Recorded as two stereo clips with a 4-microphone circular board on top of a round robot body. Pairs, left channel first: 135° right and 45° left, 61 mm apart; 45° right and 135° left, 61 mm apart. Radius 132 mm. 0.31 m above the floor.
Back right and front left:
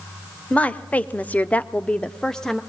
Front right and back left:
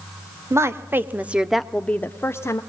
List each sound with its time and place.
0.5 s a woman speaking: 160° left, 1.5 m; by 2.6 s 50° right, 1.4 m